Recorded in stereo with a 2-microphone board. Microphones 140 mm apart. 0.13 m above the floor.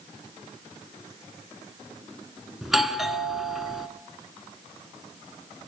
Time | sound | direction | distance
2.6 | a doorbell | centre (ahead or behind) | 1.7 m